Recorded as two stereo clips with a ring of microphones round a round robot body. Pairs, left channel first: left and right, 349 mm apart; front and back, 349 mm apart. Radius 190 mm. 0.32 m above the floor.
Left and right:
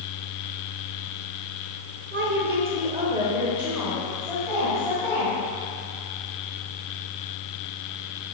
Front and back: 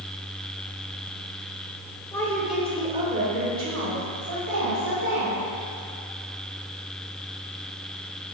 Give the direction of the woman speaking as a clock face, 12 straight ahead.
2 o'clock.